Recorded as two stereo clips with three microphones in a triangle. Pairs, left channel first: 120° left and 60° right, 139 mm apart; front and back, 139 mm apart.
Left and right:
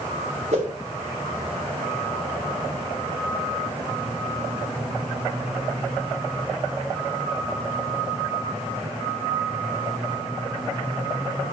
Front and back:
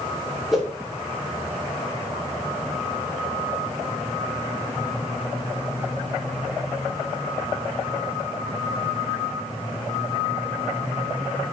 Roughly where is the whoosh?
Right.